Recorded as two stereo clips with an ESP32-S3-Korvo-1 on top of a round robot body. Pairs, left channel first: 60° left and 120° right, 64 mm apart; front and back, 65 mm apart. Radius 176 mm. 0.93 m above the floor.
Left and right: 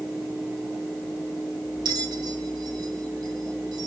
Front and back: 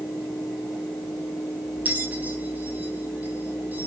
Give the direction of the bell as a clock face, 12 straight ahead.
4 o'clock.